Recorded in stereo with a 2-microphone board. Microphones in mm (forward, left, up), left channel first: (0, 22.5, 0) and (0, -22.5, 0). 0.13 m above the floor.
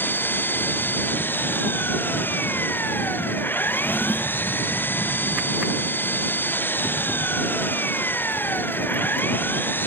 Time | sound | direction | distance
0.0 | an engine running | 45° left (ahead or behind) | ?
3.7 | a drawer | 50° left (ahead or behind) | ?